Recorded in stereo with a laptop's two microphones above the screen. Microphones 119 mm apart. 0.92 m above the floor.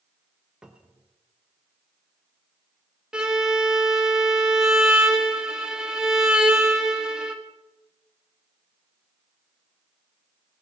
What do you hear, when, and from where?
0.6 s a cupboard door: 5° right (ahead or behind), 1.0 m
3.1 s a violin: 5° right (ahead or behind), 1.3 m